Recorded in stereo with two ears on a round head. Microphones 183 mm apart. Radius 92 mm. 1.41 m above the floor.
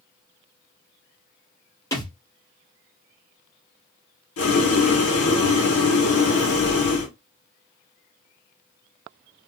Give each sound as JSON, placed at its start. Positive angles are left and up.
{"t": 1.9, "sound": "a thud", "side_deg": 15, "distance_m": 1.9}
{"t": 4.4, "sound": "boiling", "side_deg": 80, "distance_m": 1.3}